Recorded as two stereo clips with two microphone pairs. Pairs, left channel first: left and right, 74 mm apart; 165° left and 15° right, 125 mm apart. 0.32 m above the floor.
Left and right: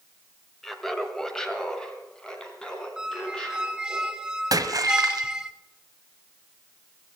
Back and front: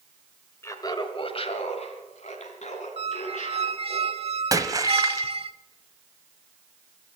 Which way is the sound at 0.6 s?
Straight behind.